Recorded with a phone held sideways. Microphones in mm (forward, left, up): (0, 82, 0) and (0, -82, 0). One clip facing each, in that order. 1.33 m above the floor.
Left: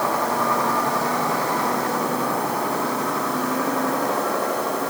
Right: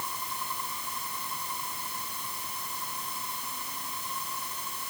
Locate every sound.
0.0 s a vehicle: 75° left (ahead or behind)